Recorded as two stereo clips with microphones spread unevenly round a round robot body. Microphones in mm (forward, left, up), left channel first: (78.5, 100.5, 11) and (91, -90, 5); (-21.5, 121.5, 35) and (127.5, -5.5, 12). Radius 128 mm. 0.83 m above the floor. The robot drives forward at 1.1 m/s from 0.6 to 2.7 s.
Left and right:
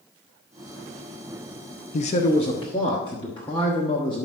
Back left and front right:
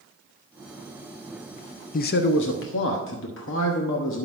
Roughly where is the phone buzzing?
I don't hear a phone buzzing.